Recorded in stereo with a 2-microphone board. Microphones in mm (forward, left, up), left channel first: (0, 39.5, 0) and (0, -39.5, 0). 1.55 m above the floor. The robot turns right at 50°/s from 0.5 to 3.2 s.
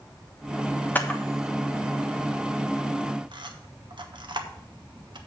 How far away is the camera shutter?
About 1.3 m.